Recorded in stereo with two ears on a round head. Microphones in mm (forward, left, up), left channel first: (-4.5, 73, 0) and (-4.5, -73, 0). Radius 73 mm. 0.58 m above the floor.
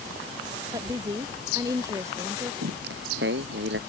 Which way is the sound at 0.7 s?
20° right (ahead or behind).